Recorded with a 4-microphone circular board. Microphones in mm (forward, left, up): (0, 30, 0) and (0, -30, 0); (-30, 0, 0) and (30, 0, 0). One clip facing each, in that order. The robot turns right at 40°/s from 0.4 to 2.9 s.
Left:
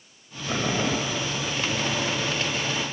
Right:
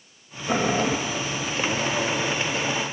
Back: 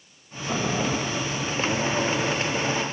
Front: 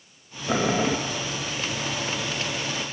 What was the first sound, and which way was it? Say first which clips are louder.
Boiling: right 3 dB, front 3 dB; 25° right.